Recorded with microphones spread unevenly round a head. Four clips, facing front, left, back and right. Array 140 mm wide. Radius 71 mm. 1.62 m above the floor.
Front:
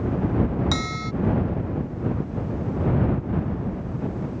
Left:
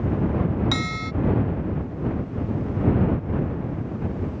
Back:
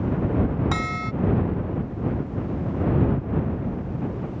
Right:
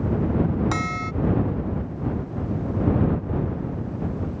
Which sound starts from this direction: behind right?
A bell, at 0.7 s.